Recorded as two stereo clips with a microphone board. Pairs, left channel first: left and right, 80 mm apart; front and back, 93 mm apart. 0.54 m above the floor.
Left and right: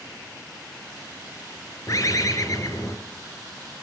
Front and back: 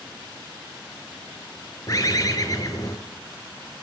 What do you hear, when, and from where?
1.9 s a bird: 50° left, 2 m